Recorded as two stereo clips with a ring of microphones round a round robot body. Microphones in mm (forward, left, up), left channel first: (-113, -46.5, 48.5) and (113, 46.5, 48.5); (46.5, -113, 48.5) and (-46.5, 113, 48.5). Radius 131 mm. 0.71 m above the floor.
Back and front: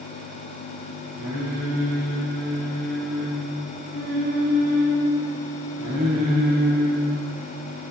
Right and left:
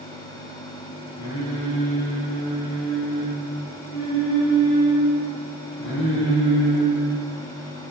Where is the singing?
30° right, 1.5 m.